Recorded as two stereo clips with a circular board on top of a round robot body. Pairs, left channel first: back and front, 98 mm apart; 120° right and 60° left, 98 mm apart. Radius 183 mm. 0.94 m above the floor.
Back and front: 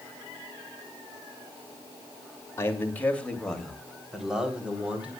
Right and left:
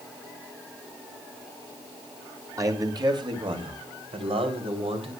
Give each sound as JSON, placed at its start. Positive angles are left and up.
{"t": 2.6, "sound": "a man speaking", "azimuth_deg": 115, "distance_m": 2.5}